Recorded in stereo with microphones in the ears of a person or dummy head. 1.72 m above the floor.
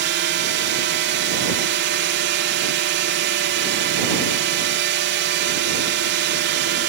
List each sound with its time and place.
0.0 s a drone: 60° right (ahead or behind)